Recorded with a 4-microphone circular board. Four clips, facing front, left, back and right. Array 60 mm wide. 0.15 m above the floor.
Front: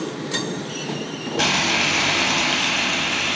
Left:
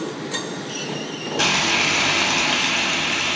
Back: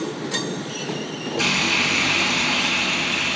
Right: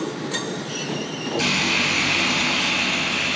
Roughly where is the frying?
Ahead left.